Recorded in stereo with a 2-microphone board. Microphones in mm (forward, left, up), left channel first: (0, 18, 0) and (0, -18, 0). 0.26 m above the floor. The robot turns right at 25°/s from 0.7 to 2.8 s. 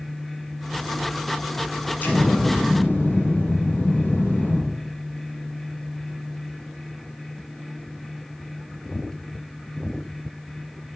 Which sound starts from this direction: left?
An explosion, at 2.0 s.